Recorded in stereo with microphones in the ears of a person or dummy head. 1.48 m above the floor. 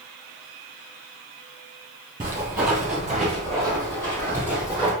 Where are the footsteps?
15° right (ahead or behind), 1.6 m; by 4.9 s 20° left (ahead or behind), 2.5 m.